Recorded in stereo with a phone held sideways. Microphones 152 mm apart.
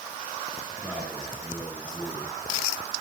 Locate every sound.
0.8 s a man speaking: 10° right (ahead or behind), 5.5 m